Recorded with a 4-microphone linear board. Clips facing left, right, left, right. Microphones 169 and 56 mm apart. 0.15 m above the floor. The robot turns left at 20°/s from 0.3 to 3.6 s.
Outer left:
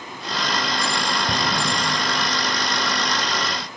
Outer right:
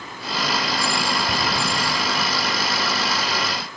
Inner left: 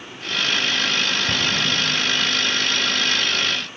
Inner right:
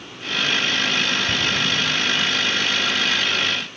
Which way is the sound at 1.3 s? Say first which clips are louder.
Even, even; 40° left (ahead or behind).